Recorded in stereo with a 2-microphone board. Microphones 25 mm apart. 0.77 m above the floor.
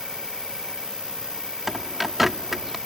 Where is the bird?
5° right (ahead or behind).